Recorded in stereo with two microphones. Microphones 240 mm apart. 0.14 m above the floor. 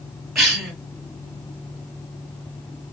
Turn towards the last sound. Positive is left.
turn(degrees=0)  # may be behind; listen again after turning